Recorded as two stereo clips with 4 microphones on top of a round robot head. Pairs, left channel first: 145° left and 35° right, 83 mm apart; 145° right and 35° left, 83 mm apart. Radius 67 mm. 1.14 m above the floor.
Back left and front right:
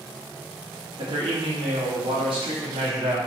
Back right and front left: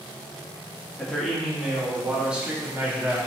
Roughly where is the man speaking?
Ahead right.